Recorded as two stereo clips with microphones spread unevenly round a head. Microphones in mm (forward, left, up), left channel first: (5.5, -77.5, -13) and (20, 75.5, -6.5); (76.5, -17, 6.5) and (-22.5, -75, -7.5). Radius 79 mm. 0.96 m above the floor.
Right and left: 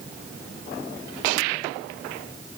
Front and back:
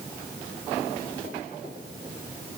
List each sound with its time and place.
Only background noise.